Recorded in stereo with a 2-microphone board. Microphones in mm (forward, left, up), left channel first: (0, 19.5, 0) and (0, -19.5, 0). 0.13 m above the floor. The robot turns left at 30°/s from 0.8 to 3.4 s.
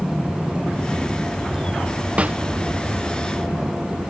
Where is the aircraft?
Centre (ahead or behind); by 4.1 s 60° right (ahead or behind).